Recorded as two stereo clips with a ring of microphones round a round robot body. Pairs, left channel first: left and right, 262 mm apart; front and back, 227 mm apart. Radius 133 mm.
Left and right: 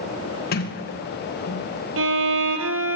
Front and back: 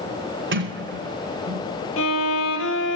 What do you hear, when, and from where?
0.5 s a sliding door: 145° left, 3 m
2.0 s a violin: 45° right, 2.5 m